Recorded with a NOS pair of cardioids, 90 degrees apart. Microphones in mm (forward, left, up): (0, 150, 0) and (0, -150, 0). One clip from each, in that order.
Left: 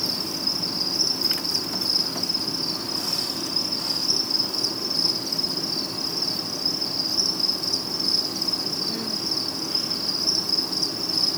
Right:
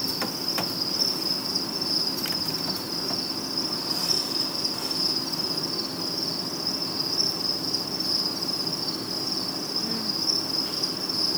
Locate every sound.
0.0 s an insect: 55° left, 6 m